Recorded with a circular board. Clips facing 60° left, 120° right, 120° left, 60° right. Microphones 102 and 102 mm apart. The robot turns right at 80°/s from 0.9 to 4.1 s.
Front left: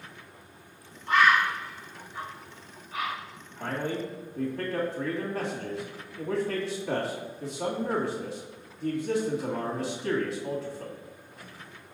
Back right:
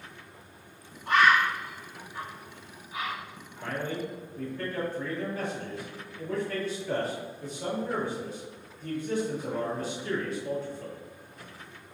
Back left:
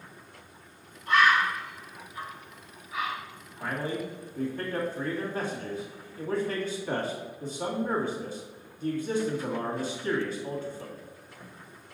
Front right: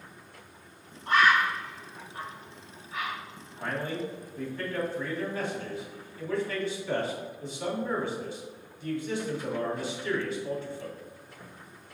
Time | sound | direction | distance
1.1 | a bird | 110° right | 2.5 m
3.6 | a man speaking | 30° left | 2 m